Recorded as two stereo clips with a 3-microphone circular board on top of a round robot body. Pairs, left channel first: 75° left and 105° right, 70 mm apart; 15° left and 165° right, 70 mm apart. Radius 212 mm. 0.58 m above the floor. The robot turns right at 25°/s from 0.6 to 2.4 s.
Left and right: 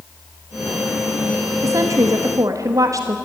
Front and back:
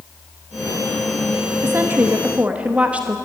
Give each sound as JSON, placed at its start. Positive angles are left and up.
{"t": 1.6, "sound": "a woman speaking", "azimuth_deg": -120, "distance_m": 1.6}